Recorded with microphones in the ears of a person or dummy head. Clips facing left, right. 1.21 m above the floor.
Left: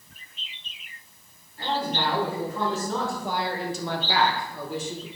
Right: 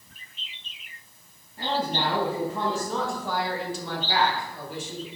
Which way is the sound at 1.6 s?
40° right (ahead or behind).